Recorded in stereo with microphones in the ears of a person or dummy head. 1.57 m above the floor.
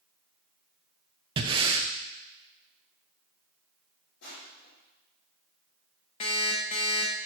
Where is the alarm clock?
25° left (ahead or behind), 0.8 m.